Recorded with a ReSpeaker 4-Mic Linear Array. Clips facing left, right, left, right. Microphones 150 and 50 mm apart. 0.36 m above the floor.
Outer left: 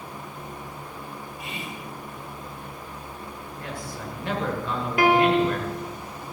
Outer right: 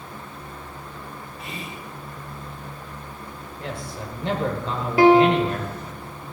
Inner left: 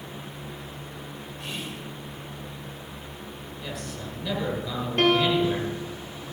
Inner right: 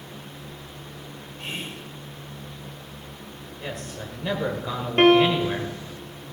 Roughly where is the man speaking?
Right.